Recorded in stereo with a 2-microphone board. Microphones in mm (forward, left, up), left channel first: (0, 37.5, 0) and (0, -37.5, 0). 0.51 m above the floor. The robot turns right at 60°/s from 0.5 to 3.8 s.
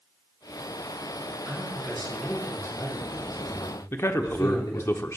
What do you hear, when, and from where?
1.5 s a man speaking: 30° right (ahead or behind), 4.5 m; by 4.9 s 65° left (ahead or behind), 4.5 m
3.9 s a man speaking: 40° left (ahead or behind), 0.9 m